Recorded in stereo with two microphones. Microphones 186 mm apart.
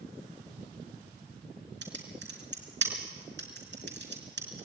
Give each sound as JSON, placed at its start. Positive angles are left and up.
{"t": 1.8, "sound": "typing on a keyboard", "side_deg": -75, "distance_m": 4.0}